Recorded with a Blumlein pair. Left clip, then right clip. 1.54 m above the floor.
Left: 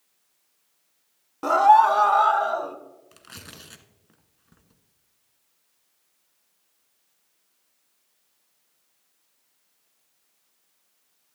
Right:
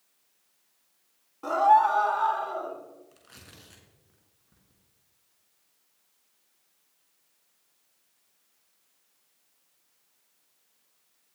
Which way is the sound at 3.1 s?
35° left.